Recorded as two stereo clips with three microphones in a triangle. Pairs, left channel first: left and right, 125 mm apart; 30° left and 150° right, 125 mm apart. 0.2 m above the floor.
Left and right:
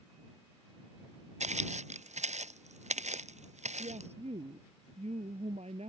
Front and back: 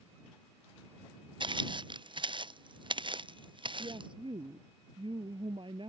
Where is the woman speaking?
110° right.